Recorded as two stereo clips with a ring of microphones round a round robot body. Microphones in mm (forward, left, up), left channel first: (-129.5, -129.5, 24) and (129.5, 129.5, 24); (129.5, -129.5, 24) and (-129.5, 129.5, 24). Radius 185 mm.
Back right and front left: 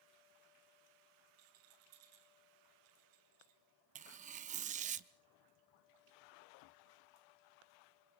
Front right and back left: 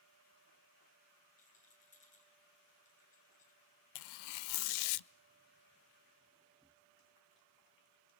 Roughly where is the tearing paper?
Ahead right.